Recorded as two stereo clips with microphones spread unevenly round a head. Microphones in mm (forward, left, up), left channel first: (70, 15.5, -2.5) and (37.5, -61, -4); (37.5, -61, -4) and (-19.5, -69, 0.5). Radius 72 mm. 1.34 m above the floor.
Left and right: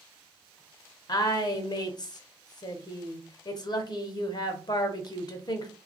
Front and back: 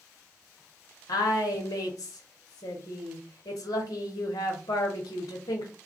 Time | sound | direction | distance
1.1 | a woman speaking | 30° left | 0.8 m